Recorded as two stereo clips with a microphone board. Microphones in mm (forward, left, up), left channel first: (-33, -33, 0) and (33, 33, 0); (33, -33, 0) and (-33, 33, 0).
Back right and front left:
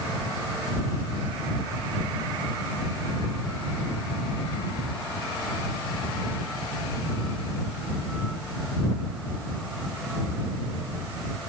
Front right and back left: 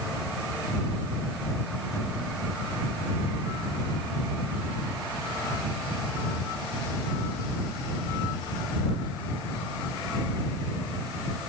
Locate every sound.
Only background noise.